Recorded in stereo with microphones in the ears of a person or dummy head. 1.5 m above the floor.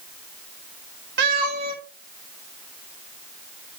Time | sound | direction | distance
1.2 | a cat meowing | 55° right (ahead or behind) | 1.8 m